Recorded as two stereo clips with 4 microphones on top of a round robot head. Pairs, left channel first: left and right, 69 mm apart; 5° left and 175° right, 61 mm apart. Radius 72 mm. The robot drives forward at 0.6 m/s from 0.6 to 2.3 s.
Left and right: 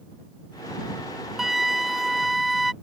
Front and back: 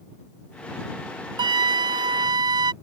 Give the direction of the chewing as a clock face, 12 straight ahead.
I don't hear chewing.